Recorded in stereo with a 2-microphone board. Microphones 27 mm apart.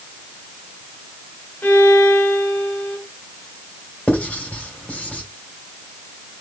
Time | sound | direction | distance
1.6 | a violin | 70° left (ahead or behind) | 3.5 m
4.1 | writing | 70° left (ahead or behind) | 3.5 m